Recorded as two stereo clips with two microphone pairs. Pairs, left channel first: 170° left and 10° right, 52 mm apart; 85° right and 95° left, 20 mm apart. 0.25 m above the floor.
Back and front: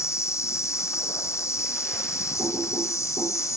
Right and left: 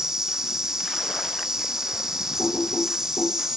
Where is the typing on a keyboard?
50° right, 8.5 m.